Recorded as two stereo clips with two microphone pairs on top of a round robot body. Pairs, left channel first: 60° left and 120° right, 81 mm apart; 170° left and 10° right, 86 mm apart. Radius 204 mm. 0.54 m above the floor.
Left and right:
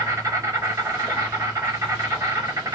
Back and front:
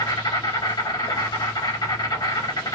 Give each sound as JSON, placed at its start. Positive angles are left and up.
{"t": 0.0, "sound": "an insect", "azimuth_deg": -165, "distance_m": 2.5}